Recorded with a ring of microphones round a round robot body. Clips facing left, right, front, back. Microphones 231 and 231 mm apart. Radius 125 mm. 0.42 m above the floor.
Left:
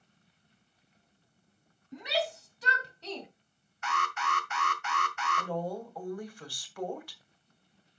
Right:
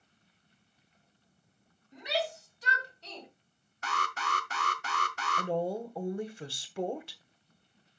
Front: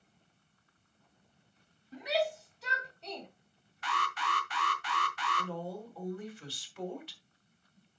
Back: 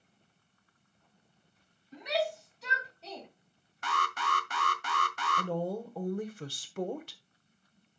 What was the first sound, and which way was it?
A shout, 85° left.